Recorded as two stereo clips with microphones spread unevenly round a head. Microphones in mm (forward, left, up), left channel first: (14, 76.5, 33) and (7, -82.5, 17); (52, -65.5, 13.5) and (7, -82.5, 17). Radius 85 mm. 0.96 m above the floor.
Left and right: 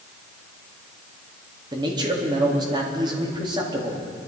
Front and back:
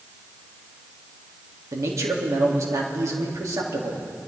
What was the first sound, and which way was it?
A man speaking, 155° right.